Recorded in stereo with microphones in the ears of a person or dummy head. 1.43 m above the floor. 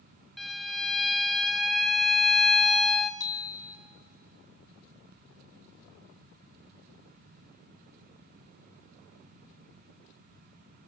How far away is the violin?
About 0.8 m.